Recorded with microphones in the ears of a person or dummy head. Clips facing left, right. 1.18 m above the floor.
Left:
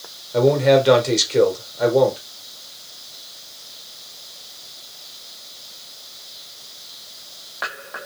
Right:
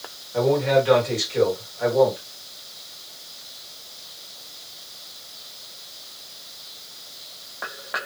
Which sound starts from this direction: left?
A man speaking, at 0.3 s.